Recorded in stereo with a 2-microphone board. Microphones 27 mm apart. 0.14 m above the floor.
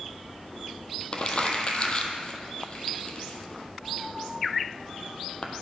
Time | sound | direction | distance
1.1 | crumpling | 40° left (ahead or behind) | 0.9 m